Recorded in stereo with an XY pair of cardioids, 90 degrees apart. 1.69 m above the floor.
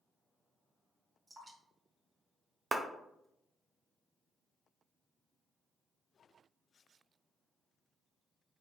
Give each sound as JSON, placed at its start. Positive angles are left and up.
{"t": 1.3, "sound": "dripping", "azimuth_deg": -30, "distance_m": 1.4}
{"t": 2.7, "sound": "a clap", "azimuth_deg": -30, "distance_m": 0.6}